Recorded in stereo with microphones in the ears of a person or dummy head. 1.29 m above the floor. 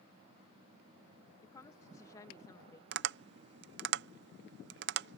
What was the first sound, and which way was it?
A woman speaking, 20° left (ahead or behind).